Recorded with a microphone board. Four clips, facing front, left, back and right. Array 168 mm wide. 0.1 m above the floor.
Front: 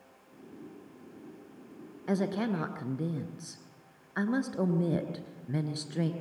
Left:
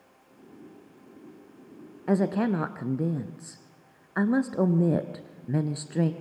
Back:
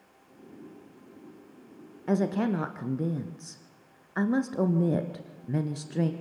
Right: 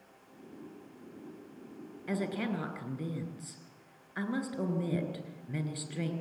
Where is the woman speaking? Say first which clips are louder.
Left 10 dB, back 4 dB; 110° left, 1.7 m.